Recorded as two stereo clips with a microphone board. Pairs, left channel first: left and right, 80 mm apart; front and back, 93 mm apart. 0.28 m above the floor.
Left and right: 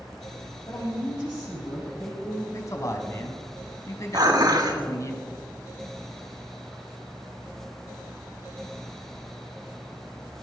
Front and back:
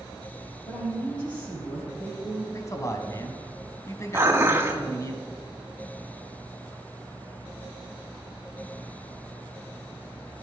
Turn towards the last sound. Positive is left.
turn(degrees=-115)